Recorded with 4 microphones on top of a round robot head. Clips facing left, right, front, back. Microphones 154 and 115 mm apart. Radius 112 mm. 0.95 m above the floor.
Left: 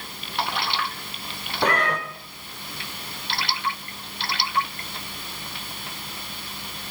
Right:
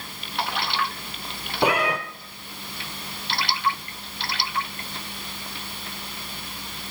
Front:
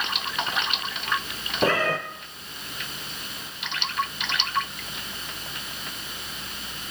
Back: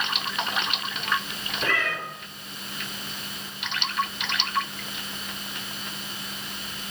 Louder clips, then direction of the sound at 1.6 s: Right 2 dB, front 6 dB; 20° right.